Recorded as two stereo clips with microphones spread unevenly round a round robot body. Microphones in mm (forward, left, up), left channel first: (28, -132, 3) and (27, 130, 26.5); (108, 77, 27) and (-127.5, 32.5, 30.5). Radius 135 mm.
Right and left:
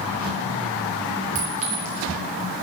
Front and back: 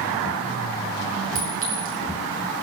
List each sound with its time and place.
1.4 s a clink: 155° left, 7.5 m